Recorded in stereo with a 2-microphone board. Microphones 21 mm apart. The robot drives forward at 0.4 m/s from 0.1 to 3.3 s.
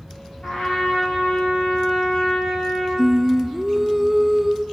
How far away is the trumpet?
About 6.5 m.